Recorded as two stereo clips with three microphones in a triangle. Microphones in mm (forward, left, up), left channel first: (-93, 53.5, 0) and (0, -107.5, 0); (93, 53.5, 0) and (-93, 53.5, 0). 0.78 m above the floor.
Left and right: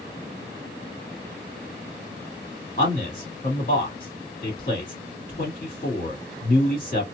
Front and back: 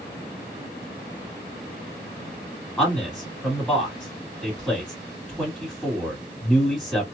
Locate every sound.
2.8 s a man speaking: 90° left, 1.9 m